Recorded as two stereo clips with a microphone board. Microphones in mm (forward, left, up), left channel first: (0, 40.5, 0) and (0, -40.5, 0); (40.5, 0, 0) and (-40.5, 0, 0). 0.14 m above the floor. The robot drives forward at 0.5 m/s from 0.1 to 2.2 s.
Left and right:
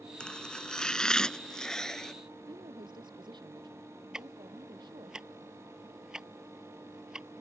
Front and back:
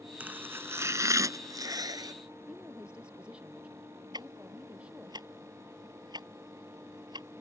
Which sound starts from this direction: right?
A woman speaking, at 2.5 s.